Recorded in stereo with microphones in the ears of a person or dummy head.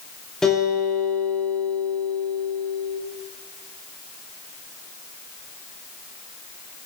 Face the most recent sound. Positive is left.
turn(degrees=5)  # may be behind; listen again after turning